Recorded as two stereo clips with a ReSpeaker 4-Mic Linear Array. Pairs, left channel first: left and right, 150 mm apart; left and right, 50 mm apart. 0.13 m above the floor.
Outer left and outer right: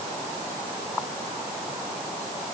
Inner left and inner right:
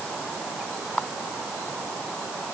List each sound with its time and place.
Only background noise.